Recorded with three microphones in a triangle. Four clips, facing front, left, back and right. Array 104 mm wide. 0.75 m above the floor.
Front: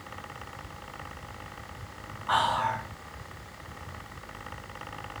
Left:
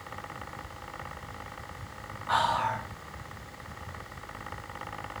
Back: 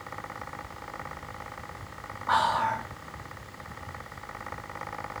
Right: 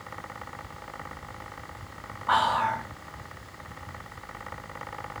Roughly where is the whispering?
Right.